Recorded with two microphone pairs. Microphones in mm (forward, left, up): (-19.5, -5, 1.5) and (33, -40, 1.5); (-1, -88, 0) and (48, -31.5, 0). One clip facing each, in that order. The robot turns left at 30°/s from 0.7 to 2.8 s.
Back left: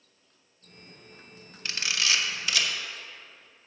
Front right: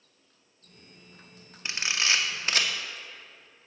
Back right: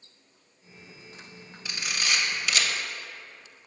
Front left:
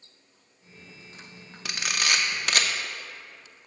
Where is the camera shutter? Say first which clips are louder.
Front right 1 dB, front left 3 dB; 35° left, 0.8 m; by 2.7 s 5° left, 0.8 m.